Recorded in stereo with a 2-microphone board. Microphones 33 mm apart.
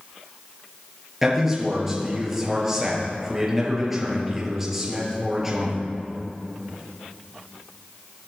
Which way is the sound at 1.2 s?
10° right (ahead or behind).